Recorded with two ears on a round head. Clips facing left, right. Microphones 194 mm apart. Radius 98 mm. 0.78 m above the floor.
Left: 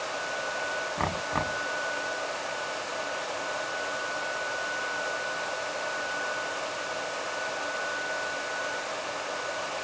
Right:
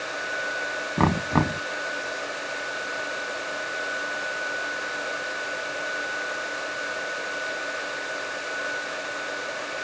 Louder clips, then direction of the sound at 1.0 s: Right 12 dB; 60° right (ahead or behind).